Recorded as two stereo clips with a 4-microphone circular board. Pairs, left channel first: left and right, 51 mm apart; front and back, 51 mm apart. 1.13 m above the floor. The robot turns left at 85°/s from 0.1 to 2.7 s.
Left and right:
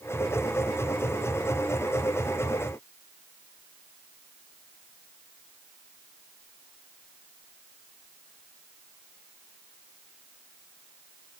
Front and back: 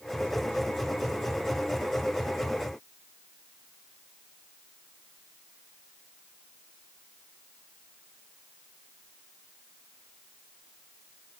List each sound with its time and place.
Only background noise.